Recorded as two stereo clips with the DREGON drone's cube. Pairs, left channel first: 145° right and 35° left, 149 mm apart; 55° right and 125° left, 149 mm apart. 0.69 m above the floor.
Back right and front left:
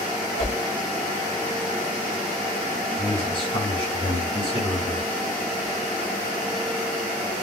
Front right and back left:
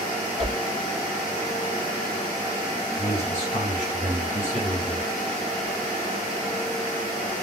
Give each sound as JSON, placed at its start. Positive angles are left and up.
{"t": 0.4, "sound": "a whoosh", "azimuth_deg": -100, "distance_m": 3.0}
{"t": 3.0, "sound": "a man speaking", "azimuth_deg": -100, "distance_m": 3.0}